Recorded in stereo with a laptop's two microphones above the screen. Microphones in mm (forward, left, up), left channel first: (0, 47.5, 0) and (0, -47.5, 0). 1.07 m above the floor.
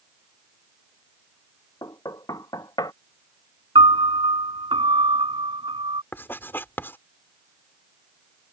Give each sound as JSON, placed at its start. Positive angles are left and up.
{"t": 1.8, "sound": "knocking", "side_deg": 40}
{"t": 3.8, "sound": "a piano", "side_deg": -60}
{"t": 6.1, "sound": "writing", "side_deg": 20}